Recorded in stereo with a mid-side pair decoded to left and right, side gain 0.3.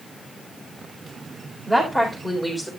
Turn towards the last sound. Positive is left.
turn(degrees=20)